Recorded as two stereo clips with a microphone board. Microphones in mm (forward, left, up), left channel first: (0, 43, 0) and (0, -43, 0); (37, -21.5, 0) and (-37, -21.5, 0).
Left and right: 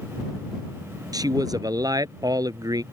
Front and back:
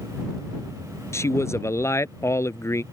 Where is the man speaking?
50° right.